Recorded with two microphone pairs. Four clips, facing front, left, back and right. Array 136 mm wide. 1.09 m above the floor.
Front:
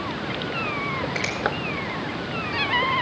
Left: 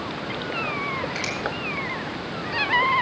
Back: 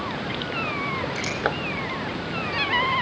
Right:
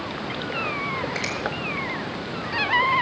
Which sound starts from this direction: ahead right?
A finger snap, at 1.1 s.